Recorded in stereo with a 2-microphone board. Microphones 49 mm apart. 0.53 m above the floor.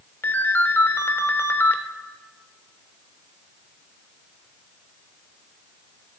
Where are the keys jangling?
I don't hear keys jangling.